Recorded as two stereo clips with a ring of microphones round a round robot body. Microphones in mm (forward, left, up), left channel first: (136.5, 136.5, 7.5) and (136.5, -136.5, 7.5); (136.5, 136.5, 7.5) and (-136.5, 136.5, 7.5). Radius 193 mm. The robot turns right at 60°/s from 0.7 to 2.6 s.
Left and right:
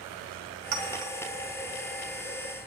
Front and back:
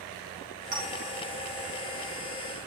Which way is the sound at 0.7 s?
115° right.